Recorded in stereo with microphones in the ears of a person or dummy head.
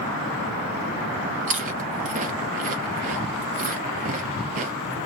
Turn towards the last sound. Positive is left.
turn(degrees=-40)  # may be behind; listen again after turning